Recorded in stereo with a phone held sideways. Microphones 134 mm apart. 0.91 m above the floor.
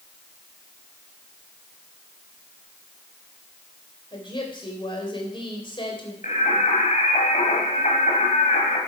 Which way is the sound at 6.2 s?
70° left (ahead or behind).